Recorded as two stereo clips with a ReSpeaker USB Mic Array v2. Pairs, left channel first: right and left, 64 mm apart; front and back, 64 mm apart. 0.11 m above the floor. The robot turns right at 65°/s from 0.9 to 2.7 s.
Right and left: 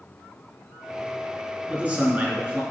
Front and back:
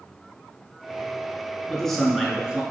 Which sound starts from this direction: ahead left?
A man speaking, at 1.7 s.